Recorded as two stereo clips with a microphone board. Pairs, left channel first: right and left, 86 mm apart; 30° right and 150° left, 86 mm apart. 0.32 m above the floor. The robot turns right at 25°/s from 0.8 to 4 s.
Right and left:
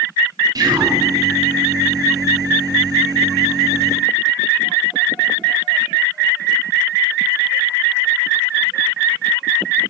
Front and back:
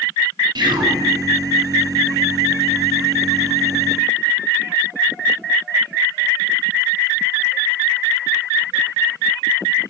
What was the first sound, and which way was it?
Whispering, 125° left.